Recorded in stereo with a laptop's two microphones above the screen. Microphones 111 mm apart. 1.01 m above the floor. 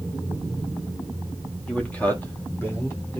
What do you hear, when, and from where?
1.7 s a man speaking: 10° left (ahead or behind), 1.6 m; by 3.2 s 25° left (ahead or behind), 3 m